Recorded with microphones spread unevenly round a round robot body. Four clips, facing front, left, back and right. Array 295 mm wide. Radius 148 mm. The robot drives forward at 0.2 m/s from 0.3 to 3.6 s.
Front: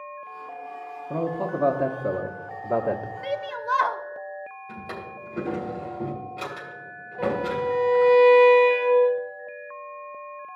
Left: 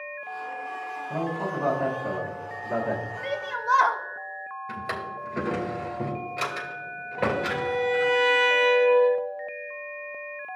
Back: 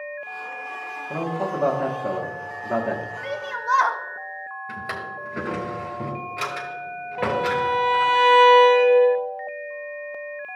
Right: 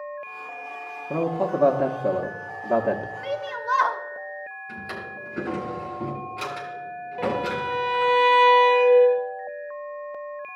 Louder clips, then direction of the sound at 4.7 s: Left 5 dB, back 6 dB; 145° left.